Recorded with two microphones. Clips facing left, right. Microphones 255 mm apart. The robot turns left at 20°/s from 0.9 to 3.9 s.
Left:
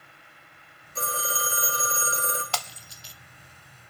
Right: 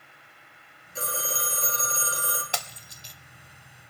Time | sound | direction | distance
0.9 | a phone ringing | centre (ahead or behind) | 1.7 m
2.5 | breaking glass | 20° right (ahead or behind) | 0.6 m